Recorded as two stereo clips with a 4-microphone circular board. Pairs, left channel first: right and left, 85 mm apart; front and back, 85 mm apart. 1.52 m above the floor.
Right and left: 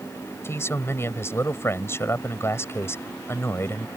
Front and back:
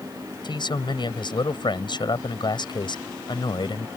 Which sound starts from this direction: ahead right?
A man speaking, at 0.4 s.